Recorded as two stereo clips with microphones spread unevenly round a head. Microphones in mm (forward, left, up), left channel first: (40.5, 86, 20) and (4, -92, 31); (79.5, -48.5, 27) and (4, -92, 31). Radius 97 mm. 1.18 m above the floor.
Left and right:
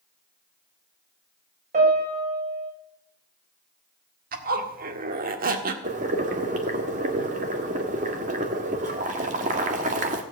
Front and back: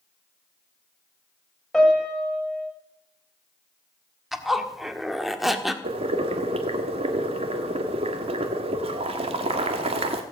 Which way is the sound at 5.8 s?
155° right.